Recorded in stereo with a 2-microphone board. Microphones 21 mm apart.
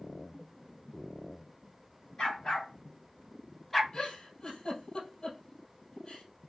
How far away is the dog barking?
About 2.0 m.